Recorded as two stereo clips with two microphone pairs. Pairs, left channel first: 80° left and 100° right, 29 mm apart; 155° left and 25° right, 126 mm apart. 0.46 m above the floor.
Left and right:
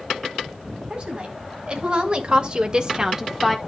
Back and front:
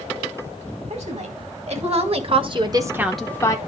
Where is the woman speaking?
45° right, 4 m; by 3.6 s 170° left, 1.2 m.